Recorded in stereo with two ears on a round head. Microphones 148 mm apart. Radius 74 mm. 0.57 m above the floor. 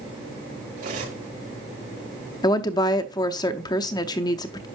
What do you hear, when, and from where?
0.8 s cutlery clinking: 50° right (ahead or behind), 5.5 m
2.4 s a woman speaking: 25° left (ahead or behind), 0.6 m